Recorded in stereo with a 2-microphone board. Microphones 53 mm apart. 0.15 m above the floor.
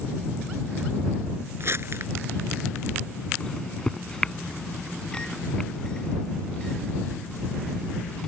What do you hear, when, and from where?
1.6 s crumpling: 55° right (ahead or behind)
3.4 s a microwave: 15° left (ahead or behind)